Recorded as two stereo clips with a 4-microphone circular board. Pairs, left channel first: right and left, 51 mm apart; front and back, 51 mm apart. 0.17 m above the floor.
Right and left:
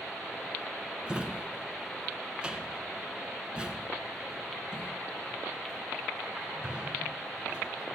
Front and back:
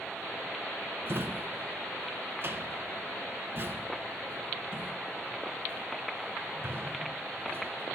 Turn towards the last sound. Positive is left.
turn(degrees=155)